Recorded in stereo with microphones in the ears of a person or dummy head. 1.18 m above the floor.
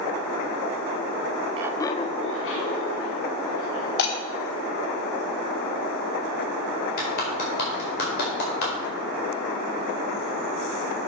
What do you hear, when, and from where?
1.6 s laughter: 25° right (ahead or behind), 0.5 m; by 3.9 s 80° left, 3 m
4.0 s breaking glass: 65° left (ahead or behind), 1.6 m
7.0 s a clap: 55° left (ahead or behind), 4.5 m